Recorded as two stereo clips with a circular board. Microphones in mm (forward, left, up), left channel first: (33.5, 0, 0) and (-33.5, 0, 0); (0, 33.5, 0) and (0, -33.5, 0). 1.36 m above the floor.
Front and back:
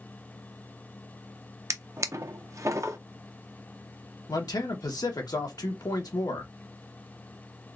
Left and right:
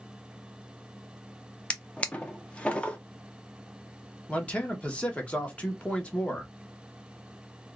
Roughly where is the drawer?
Behind left.